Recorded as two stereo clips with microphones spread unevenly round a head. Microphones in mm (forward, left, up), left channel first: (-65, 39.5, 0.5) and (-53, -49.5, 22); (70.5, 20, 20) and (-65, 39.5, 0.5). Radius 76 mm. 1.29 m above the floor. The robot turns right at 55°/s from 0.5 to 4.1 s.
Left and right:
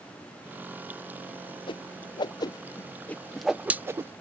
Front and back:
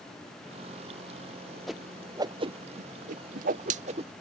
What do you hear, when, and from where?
1.7 s a whoosh: 85° left; by 4.1 s 140° right